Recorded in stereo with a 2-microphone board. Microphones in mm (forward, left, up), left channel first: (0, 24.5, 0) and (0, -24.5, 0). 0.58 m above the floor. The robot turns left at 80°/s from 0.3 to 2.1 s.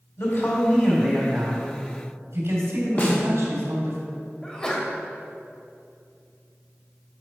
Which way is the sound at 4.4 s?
20° left (ahead or behind).